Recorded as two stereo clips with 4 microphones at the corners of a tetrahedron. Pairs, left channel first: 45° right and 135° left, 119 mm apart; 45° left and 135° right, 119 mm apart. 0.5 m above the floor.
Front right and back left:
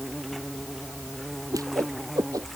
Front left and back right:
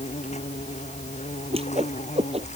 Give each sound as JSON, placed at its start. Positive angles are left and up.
{"t": 0.0, "sound": "an insect", "azimuth_deg": 45}
{"t": 1.5, "sound": "a whoosh", "azimuth_deg": -165}